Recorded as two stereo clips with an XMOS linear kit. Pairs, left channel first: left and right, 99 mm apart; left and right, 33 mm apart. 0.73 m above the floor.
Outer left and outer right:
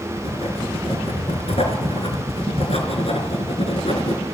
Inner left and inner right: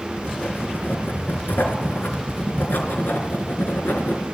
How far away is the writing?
About 3.5 m.